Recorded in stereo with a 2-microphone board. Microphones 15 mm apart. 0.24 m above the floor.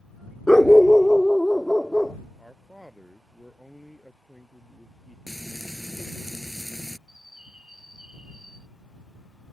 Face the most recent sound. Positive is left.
turn(degrees=-80)